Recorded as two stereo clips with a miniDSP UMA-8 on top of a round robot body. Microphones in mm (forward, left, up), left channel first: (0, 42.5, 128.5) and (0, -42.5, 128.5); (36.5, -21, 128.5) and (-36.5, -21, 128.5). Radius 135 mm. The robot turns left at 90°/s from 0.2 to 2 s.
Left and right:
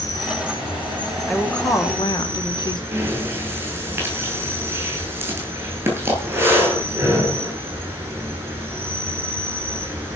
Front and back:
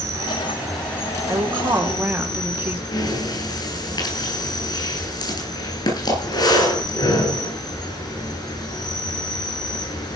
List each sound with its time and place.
0.0 s an insect: 140° left, 9.5 m; by 10.2 s 25° right, 9.5 m
1.3 s a woman speaking: straight behind, 1.8 m; by 2.8 s 115° left, 1.8 m
2.9 s breathing: 25° right, 9 m